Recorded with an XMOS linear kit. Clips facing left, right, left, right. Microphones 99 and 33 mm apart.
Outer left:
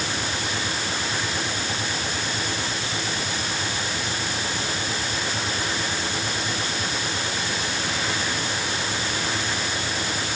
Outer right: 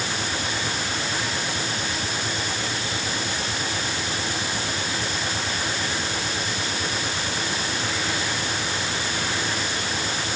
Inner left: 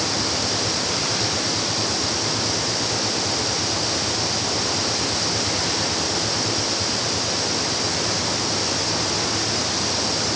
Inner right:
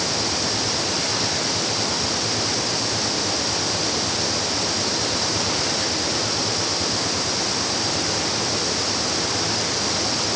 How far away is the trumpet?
I don't hear a trumpet.